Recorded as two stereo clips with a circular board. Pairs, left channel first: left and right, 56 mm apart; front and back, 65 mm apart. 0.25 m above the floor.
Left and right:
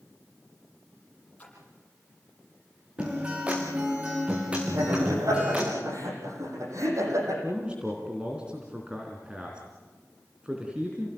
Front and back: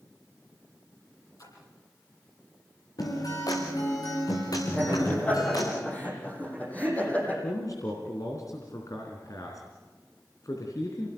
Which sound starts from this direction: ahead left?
A splash, at 1.4 s.